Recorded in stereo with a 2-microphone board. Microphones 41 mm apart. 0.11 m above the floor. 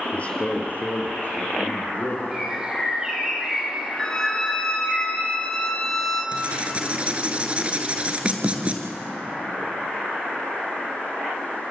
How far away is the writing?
About 2.0 m.